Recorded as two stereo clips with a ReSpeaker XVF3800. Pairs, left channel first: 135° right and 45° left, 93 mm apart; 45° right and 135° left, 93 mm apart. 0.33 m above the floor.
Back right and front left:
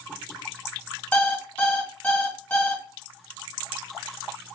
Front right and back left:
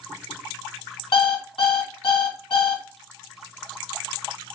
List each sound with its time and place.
1.1 s an alarm clock: 55° right, 1.3 m